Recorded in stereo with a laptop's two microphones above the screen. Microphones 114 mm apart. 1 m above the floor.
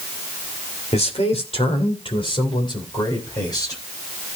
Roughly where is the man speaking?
Left.